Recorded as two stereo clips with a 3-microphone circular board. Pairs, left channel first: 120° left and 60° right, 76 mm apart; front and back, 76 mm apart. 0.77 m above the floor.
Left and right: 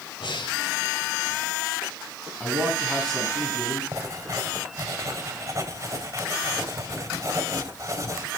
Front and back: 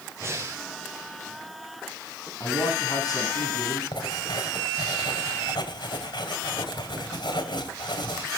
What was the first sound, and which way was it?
Breathing, 125° left.